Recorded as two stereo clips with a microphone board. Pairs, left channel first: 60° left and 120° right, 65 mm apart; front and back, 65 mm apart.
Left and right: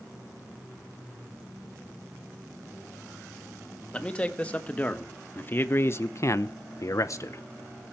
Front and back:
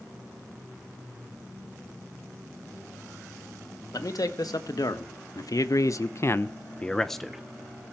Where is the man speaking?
10° right, 1.9 m; by 7.4 s 100° left, 0.9 m.